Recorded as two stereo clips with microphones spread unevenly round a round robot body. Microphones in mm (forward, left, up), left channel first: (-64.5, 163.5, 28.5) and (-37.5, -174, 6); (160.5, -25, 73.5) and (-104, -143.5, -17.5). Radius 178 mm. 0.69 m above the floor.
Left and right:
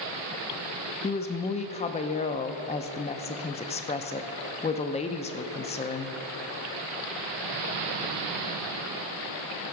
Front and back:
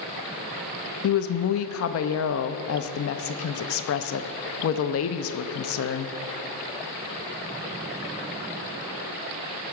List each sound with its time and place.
1.0 s a woman speaking: 35° left, 0.5 m